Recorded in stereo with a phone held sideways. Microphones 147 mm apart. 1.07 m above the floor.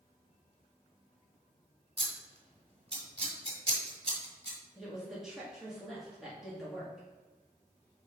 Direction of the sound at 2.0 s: 40° right (ahead or behind).